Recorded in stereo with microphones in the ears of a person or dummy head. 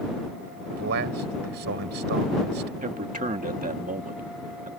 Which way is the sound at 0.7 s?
60° right (ahead or behind).